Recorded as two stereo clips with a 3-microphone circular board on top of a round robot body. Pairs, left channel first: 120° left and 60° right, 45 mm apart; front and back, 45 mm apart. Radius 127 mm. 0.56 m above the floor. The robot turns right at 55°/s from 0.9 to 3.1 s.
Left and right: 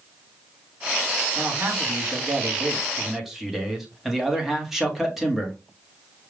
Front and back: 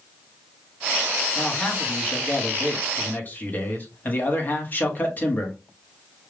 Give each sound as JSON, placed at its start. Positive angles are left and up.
{"t": 1.4, "sound": "a man speaking", "azimuth_deg": -75, "distance_m": 1.6}